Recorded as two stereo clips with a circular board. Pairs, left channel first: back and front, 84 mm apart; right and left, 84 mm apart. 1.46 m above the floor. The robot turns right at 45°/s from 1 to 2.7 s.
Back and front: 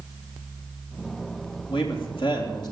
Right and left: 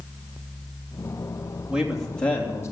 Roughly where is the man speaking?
Behind.